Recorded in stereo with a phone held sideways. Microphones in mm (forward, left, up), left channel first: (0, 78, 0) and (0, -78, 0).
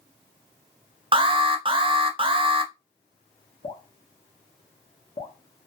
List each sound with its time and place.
1.1 s an alarm: 35° right (ahead or behind), 0.5 m
3.6 s dripping: 35° left (ahead or behind), 0.7 m